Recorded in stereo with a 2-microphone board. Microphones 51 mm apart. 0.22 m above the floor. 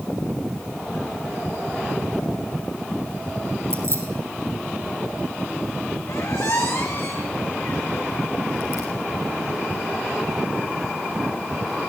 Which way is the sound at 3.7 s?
65° right (ahead or behind).